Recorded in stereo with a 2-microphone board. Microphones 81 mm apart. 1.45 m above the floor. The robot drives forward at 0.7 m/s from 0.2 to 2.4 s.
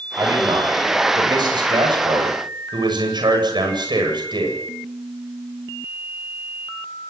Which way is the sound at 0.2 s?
55° right (ahead or behind).